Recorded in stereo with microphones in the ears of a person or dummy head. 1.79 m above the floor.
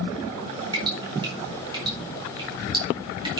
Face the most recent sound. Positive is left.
turn(degrees=-20)  # may be behind; listen again after turning